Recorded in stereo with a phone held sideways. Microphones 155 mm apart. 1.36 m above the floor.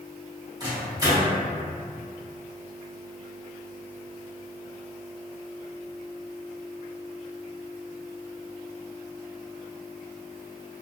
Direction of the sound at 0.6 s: 25° right (ahead or behind).